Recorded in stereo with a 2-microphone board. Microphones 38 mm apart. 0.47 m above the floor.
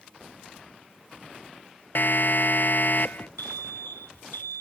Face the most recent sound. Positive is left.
turn(degrees=65)  # may be behind; listen again after turning